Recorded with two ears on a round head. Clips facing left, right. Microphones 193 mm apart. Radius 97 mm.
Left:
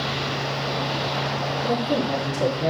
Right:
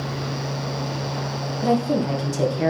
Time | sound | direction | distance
1.6 | a woman speaking | 85° right | 1.7 m